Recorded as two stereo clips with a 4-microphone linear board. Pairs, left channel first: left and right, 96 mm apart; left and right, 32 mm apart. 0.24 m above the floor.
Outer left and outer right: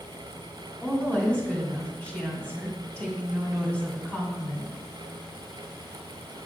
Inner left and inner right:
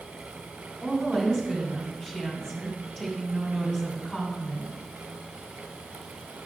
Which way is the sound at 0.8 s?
15° left (ahead or behind).